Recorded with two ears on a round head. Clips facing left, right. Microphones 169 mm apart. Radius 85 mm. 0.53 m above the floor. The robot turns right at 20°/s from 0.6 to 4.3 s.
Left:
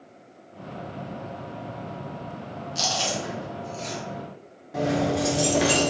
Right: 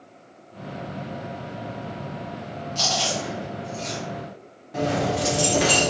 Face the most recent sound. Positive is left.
turn(degrees=5)  # may be behind; listen again after turning